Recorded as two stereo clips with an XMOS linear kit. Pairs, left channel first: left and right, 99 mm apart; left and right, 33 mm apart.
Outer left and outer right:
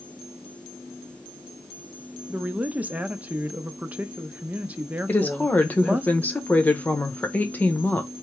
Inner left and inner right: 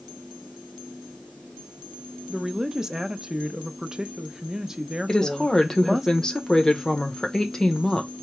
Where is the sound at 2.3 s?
15° right (ahead or behind), 0.6 m.